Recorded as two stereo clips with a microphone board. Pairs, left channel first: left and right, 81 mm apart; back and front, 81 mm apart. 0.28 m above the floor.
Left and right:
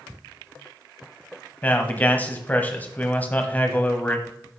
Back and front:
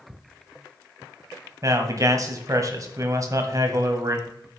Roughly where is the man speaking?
Ahead left.